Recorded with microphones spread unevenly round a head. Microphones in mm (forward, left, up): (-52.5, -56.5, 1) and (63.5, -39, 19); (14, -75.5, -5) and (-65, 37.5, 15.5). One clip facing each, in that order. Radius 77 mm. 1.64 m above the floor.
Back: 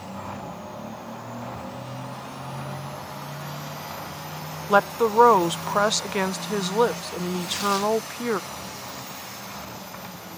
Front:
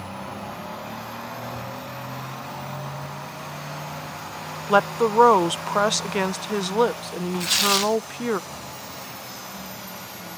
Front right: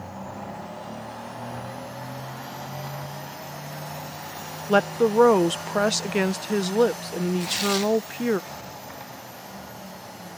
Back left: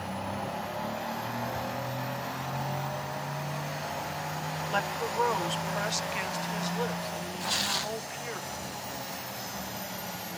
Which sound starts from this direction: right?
A woman speaking, at 4.7 s.